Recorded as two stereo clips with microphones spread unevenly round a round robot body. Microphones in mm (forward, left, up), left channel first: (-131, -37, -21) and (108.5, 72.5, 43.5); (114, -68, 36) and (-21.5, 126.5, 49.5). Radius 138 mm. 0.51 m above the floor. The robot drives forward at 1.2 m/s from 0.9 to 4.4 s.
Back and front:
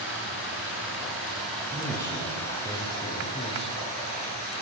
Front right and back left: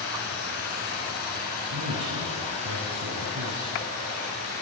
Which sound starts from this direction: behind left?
A man speaking, at 1.7 s.